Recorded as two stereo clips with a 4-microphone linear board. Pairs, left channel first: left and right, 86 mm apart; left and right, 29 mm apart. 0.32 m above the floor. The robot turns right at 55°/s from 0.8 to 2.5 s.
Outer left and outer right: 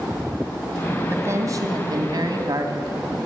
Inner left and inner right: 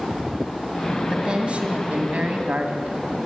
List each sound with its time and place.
1.1 s a woman speaking: 145° right, 2.5 m; by 3.2 s 70° right, 2.5 m